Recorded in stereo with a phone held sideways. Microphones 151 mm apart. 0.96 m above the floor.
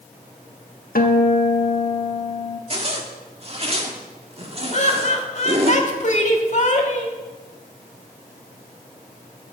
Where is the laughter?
50° left (ahead or behind), 1.9 m.